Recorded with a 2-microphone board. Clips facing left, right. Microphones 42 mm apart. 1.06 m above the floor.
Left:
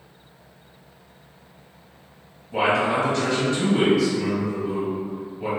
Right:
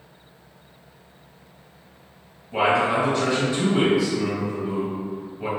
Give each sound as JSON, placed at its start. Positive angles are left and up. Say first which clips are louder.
{"t": 2.5, "sound": "a man speaking", "louder": "right 1 dB", "side_deg": -10, "distance_m": 1.7}